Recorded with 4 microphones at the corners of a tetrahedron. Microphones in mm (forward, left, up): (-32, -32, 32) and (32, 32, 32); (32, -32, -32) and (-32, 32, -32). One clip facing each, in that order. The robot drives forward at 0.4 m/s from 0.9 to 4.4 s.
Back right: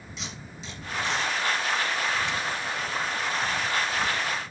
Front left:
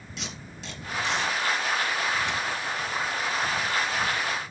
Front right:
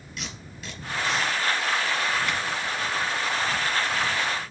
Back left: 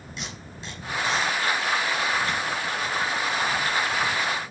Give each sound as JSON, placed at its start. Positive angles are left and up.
{"t": 0.2, "sound": "tape being pulled", "azimuth_deg": 70, "distance_m": 3.5}